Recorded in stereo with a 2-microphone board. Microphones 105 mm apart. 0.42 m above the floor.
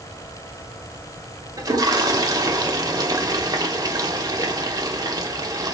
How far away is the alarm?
No alarm in this recording.